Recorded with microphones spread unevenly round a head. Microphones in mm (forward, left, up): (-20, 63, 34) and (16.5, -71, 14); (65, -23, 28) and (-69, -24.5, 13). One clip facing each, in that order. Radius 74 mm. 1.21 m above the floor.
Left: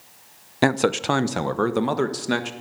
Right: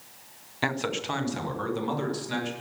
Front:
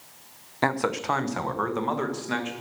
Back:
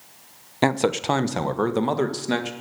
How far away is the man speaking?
About 0.7 m.